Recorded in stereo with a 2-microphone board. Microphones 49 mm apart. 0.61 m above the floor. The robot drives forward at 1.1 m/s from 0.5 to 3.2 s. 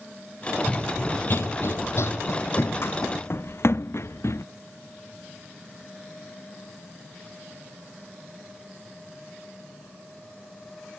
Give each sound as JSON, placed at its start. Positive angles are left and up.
{"t": 0.7, "sound": "running footsteps", "side_deg": 15}